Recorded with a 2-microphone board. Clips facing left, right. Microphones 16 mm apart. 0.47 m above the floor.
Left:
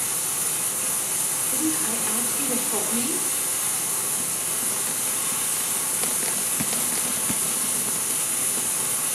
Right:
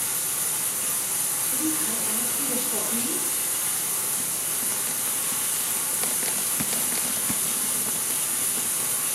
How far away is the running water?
About 3.5 m.